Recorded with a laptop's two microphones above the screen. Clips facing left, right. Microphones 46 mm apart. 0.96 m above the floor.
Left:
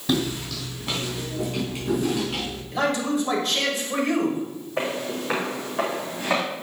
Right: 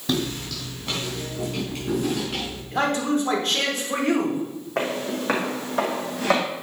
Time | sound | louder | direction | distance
0.1 | footsteps | left 1 dB | centre (ahead or behind) | 3.5 m
2.7 | a man speaking | right 1 dB | 50° right (ahead or behind) | 3 m
4.8 | footsteps | right 1 dB | 65° right (ahead or behind) | 3 m